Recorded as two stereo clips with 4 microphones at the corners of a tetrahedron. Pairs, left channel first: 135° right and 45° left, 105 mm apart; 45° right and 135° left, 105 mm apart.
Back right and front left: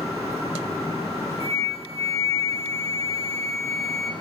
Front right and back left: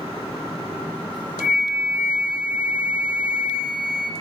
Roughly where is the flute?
Behind right.